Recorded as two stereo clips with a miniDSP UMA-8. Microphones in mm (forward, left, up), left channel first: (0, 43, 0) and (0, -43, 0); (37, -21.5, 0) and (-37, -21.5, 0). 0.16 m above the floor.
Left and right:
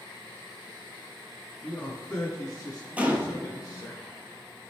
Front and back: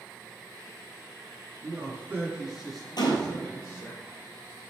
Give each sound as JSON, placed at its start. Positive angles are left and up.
{"t": 1.6, "sound": "a man speaking", "azimuth_deg": 160, "distance_m": 2.0}
{"t": 3.0, "sound": "a gunshot", "azimuth_deg": -20, "distance_m": 0.9}